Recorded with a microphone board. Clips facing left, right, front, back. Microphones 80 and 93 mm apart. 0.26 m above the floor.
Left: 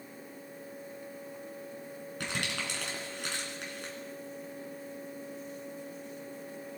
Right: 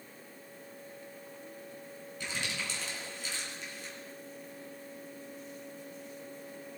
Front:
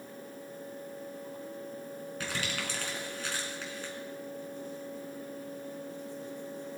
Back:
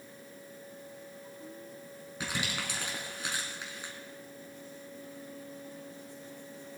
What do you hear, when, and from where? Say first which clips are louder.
2.2 s crumpling: left 2 dB, back 1 dB; 105° left, 3 m